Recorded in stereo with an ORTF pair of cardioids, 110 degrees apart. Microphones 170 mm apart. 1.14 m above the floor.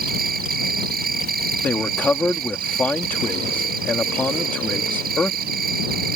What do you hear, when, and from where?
0.0 s an insect: 65° right
1.6 s a man speaking: 10° left